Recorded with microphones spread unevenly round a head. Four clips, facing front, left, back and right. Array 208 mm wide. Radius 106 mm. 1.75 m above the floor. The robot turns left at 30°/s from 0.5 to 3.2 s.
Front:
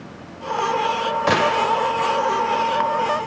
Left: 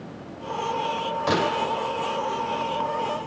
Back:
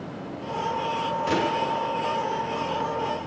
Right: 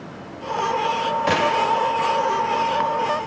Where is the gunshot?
5° right, 2 m; by 1.9 s 25° right, 2 m.